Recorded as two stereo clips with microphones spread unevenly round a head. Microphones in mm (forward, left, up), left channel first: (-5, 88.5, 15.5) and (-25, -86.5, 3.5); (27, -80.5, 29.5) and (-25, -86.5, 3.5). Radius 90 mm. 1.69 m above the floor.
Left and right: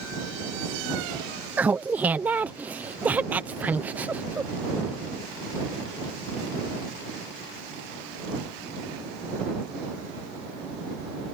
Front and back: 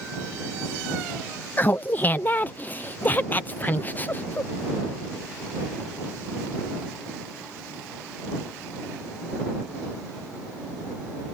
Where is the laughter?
15° right.